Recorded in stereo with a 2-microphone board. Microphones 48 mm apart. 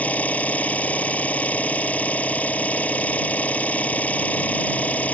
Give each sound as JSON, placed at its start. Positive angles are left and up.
{"t": 0.0, "sound": "an engine running", "side_deg": 30}